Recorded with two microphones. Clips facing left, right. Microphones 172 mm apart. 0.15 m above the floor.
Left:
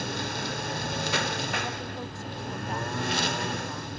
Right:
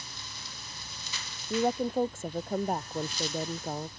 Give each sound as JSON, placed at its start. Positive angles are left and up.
{"t": 0.0, "sound": "a lawn mower", "side_deg": 70}
{"t": 1.5, "sound": "a woman speaking", "side_deg": -45}